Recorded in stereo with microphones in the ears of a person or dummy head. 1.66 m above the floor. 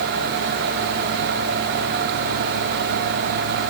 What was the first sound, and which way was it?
Only background noise.